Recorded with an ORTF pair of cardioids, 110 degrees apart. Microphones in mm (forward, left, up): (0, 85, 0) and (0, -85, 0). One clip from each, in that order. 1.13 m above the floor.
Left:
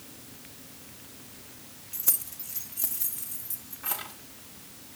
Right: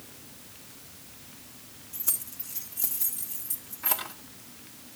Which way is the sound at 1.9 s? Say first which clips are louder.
Left 2 dB; 20° left.